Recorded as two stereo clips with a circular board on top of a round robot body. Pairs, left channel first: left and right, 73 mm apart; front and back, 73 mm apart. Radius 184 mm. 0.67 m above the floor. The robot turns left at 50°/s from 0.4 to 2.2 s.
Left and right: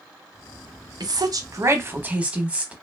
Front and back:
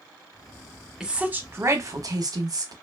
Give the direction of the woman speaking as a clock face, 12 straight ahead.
3 o'clock.